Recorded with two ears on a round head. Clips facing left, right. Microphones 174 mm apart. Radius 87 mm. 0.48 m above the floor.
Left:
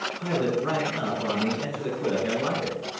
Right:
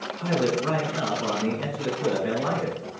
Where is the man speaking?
30° left (ahead or behind), 4 m.